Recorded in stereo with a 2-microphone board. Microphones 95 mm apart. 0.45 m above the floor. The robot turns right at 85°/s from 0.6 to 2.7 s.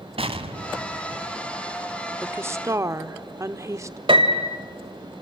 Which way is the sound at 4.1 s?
60° right (ahead or behind).